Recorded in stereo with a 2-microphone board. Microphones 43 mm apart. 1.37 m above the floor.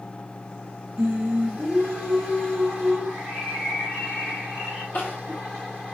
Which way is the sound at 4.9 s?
70° left (ahead or behind).